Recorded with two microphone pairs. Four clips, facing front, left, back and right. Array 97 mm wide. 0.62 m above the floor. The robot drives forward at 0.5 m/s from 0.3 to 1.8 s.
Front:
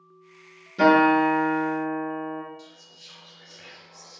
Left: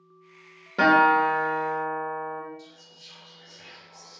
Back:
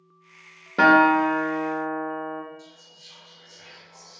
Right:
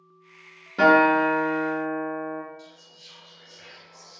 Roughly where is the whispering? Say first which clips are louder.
Right 1 dB, even; ahead right.